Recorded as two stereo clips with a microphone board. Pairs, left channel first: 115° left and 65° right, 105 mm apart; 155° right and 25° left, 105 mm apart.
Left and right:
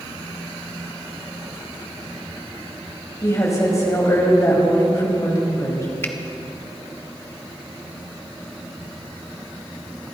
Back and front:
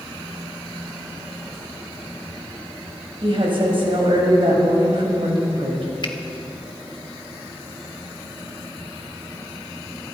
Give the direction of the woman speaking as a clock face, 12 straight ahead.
10 o'clock.